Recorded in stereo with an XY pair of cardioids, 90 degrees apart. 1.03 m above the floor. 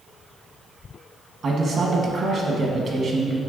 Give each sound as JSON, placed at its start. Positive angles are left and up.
{"t": 1.4, "sound": "a man speaking", "azimuth_deg": -55, "distance_m": 0.9}